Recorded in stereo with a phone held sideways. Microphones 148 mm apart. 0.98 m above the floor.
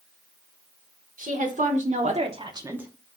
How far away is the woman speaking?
About 1.3 m.